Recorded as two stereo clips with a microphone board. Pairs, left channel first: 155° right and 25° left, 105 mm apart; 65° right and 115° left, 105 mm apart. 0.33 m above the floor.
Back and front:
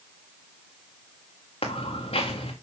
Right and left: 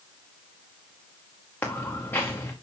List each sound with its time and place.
1.6 s footsteps: 140° right, 2.0 m